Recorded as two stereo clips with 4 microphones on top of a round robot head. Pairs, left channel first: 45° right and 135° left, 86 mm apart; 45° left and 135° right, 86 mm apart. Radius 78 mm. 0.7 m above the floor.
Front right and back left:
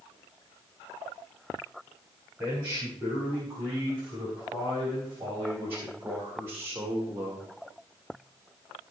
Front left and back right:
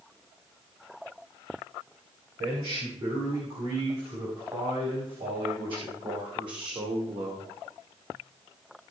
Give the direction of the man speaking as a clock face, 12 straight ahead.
5 o'clock.